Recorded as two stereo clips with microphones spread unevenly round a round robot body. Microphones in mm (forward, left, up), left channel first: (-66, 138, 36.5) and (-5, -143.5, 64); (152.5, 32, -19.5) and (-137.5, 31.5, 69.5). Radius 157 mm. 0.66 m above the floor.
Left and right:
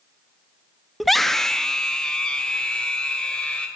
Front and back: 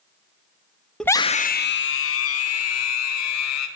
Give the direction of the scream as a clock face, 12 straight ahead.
11 o'clock.